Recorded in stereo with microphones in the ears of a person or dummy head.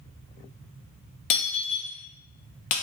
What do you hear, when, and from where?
1.3 s breaking glass: 40° left (ahead or behind), 0.6 m